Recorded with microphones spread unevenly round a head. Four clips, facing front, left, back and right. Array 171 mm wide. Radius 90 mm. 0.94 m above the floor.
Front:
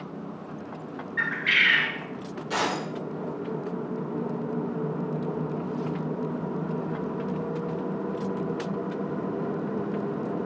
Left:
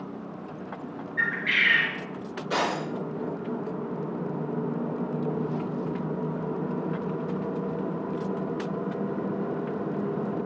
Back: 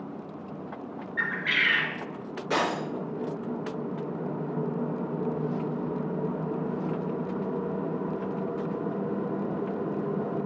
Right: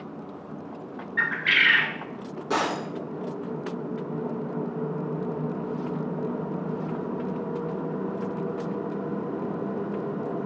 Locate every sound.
1.2 s a bird: 70° right, 1.6 m
2.5 s breaking glass: 115° right, 4 m